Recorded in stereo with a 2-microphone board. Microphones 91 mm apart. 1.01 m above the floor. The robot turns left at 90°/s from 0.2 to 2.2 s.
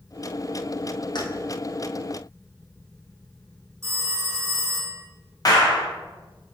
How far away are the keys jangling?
About 0.6 m.